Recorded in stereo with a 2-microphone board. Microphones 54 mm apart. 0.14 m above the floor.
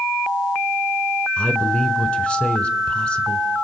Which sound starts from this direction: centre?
A man speaking, at 1.4 s.